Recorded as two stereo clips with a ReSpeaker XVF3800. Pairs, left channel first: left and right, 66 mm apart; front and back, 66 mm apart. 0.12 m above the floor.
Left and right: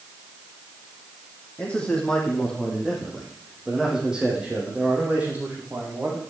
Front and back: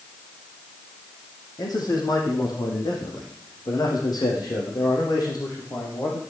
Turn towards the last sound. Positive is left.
turn(degrees=-30)